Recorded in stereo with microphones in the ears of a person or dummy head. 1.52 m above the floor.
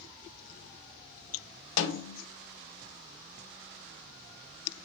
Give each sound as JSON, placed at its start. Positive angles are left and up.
{"t": 1.8, "sound": "a snare drum", "side_deg": 75, "distance_m": 1.1}